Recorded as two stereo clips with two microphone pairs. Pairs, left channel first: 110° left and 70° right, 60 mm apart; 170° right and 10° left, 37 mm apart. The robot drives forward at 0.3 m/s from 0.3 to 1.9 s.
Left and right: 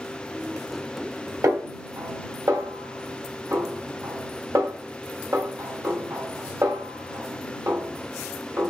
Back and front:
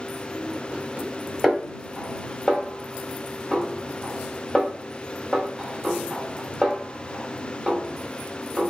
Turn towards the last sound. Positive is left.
turn(degrees=-90)